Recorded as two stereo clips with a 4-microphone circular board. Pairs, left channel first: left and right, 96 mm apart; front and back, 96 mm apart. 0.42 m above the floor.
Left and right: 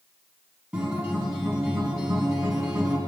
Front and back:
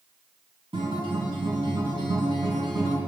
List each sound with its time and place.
0.7 s a guitar: 170° right, 3.5 m